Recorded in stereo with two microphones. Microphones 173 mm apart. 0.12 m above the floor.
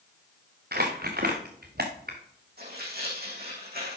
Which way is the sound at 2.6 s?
65° right (ahead or behind).